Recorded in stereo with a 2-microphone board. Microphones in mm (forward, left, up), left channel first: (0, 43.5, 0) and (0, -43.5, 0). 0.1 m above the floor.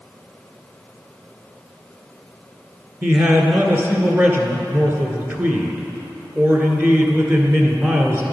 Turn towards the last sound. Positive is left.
turn(degrees=-25)  # may be behind; listen again after turning